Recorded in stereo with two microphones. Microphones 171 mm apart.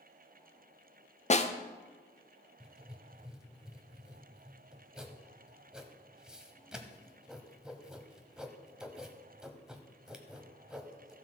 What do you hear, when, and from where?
1.3 s a snare drum: 40° left (ahead or behind), 0.6 m
2.6 s writing: 5° right (ahead or behind), 1.0 m